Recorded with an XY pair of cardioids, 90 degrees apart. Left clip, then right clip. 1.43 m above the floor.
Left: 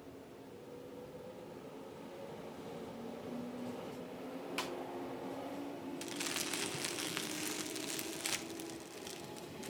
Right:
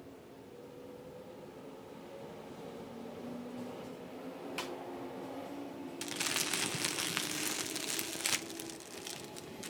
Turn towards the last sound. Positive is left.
turn(degrees=-40)